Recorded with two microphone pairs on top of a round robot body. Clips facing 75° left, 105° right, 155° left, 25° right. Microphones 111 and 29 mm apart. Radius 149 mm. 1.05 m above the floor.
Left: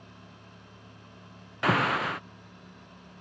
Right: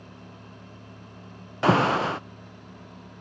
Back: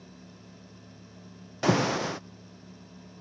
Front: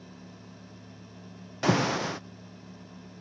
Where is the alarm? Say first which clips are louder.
Right 5 dB, even; 100° right.